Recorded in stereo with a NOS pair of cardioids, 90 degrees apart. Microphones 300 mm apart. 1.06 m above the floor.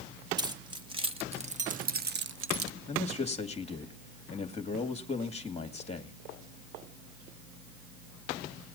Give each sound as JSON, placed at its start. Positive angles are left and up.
{"t": 0.4, "sound": "keys jangling", "azimuth_deg": -15, "distance_m": 1.9}
{"t": 2.9, "sound": "a man speaking", "azimuth_deg": 20, "distance_m": 2.5}